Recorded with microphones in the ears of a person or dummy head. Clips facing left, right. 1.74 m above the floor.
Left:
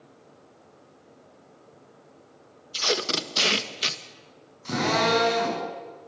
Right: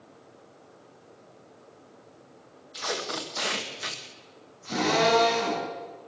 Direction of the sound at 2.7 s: 45° left (ahead or behind).